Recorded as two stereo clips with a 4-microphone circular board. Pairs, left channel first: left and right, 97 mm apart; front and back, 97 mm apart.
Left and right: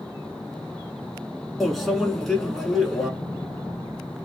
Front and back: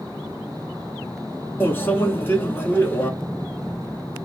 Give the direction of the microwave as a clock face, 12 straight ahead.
12 o'clock.